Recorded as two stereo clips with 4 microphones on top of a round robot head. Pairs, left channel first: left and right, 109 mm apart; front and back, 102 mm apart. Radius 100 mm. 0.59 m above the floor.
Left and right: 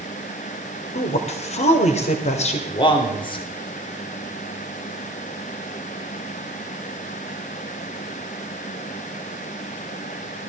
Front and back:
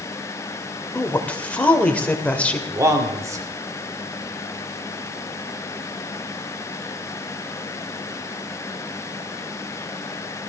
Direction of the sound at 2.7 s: 125° left.